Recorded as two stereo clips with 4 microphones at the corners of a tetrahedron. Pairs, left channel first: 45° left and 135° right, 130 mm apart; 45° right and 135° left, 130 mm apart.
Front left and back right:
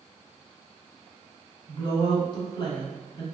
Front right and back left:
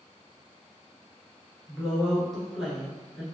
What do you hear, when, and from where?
1.7 s a woman speaking: 45° left, 1.5 m